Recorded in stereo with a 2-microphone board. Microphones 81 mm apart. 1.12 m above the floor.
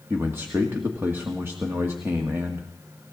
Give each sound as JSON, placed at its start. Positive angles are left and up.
{"t": 0.1, "sound": "a man speaking", "side_deg": -30, "distance_m": 1.6}